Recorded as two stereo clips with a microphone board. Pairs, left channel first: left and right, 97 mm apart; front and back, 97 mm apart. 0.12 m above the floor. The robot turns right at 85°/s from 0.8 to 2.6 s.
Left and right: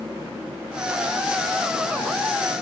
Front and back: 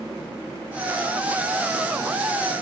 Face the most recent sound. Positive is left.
No sound to turn to.